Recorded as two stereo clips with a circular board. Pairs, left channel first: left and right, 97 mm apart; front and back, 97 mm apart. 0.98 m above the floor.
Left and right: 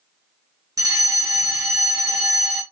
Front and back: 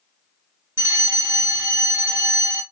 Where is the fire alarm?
130° right, 1.8 m.